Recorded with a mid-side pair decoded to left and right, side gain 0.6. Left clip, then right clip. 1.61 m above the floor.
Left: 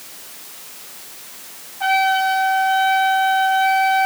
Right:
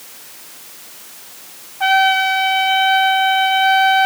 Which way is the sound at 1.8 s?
30° right.